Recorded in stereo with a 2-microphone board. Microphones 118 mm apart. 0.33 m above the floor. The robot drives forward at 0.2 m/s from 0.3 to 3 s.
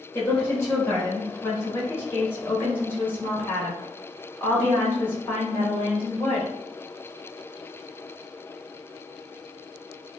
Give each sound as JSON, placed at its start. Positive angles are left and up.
{"t": 0.1, "sound": "a woman speaking", "side_deg": 20, "distance_m": 0.9}